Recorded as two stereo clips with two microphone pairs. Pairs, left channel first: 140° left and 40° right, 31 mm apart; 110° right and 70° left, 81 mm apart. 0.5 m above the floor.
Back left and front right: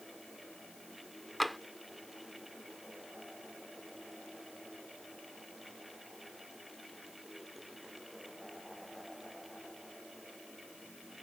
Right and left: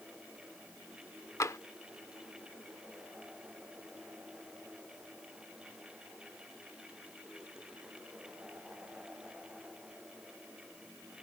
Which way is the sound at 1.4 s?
130° right.